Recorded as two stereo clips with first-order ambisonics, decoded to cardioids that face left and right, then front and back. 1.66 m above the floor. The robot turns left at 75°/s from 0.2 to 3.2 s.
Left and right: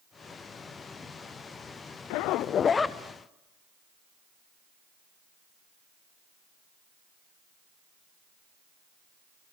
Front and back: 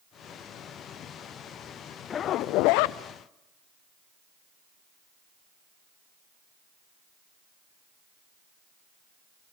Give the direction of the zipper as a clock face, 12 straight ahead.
10 o'clock.